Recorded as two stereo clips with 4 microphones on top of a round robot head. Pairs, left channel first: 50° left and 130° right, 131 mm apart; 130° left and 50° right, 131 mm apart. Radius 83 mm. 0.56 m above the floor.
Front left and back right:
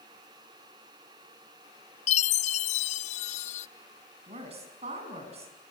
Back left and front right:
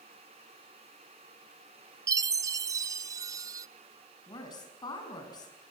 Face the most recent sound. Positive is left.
turn(degrees=-170)